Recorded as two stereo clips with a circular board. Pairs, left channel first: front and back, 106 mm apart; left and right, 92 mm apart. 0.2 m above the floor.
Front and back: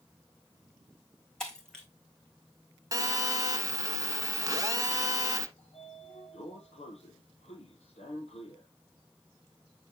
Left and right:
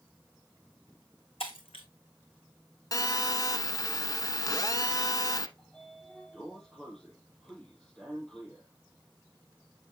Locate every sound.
1.4 s breaking glass: 85° left, 1.6 m
2.9 s a phone buzzing: 130° left, 0.7 m
5.6 s a sliding door: 10° left, 3 m